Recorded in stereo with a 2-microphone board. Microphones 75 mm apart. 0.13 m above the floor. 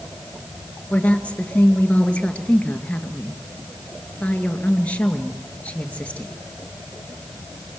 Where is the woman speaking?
15° left (ahead or behind), 2 m.